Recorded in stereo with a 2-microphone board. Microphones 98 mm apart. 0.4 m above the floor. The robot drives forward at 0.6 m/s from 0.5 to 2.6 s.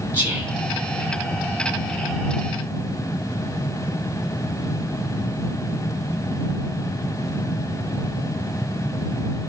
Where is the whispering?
20° right (ahead or behind), 3.5 m.